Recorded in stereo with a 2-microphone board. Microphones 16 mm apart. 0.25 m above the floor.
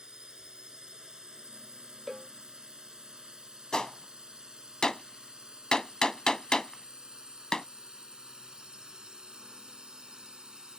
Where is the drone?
50° right (ahead or behind); by 10.8 s 55° right (ahead or behind).